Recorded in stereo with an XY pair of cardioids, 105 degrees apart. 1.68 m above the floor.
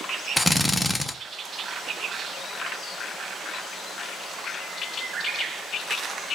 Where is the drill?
10° left, 1.4 m.